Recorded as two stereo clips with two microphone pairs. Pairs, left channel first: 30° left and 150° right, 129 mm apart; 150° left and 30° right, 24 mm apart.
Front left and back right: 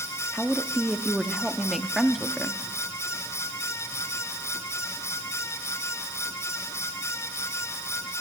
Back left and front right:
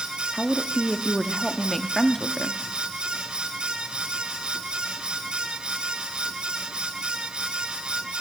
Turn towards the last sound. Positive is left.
turn(degrees=125)